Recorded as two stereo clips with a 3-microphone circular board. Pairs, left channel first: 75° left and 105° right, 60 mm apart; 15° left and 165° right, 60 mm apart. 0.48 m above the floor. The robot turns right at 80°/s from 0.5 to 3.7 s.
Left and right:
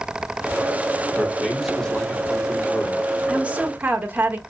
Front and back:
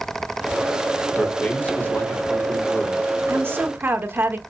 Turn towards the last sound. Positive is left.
turn(degrees=-140)